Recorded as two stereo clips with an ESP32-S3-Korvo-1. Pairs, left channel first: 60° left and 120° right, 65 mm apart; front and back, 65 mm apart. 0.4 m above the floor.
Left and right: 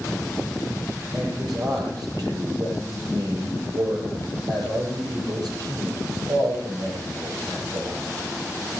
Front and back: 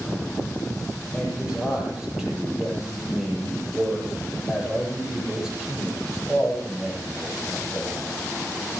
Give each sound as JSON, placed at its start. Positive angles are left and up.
{"t": 1.1, "sound": "a man speaking", "azimuth_deg": -100, "distance_m": 8.5}